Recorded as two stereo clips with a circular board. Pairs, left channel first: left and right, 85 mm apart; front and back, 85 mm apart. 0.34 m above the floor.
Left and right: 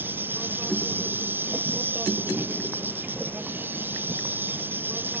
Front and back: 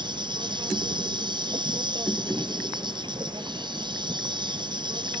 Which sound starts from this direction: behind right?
An insect, at 0.0 s.